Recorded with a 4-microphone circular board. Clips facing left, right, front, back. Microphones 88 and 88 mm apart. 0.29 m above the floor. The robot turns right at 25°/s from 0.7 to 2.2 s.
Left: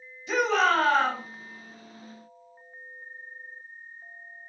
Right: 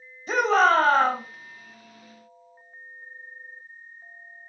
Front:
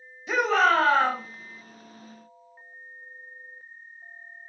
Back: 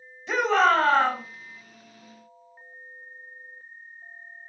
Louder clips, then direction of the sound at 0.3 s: Right 4 dB, back 1 dB; 85° right.